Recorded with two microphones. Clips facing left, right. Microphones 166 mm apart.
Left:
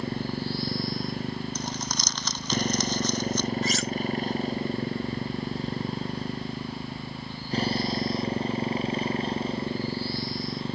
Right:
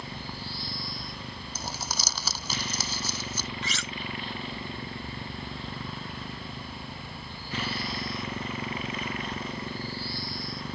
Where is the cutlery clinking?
45° left (ahead or behind).